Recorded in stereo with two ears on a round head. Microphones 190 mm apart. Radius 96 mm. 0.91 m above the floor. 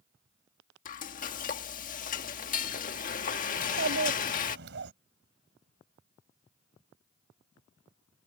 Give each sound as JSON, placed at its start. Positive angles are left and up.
{"t": 0.8, "sound": "frying", "side_deg": 40}
{"t": 3.6, "sound": "a child speaking", "side_deg": -60}